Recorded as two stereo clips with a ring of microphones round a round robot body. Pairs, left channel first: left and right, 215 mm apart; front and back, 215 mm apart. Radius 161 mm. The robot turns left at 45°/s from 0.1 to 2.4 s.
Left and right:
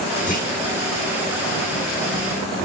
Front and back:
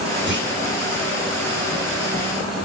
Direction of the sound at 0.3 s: 145° left.